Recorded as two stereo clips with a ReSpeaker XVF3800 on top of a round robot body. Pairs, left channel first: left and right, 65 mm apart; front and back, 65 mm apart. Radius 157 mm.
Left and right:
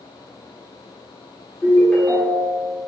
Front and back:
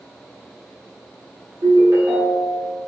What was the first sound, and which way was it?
A ringtone, 160° left.